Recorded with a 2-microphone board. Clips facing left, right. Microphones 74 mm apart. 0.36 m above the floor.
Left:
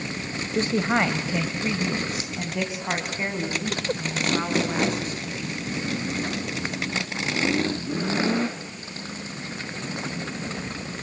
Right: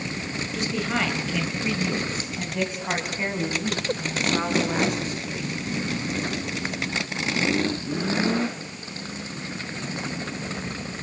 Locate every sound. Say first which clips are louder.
0.5 s a woman speaking: left 5 dB; 40° left (ahead or behind), 1.6 m; by 5.6 s 10° right (ahead or behind), 4.5 m